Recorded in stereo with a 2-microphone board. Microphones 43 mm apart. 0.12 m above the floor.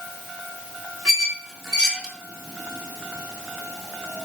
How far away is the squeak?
About 0.8 m.